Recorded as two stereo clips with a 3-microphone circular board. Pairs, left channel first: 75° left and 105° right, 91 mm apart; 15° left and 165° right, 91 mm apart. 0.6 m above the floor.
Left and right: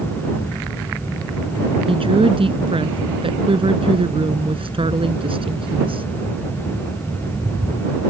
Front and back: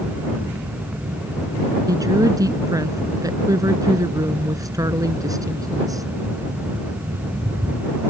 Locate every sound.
1.9 s a woman speaking: 115° right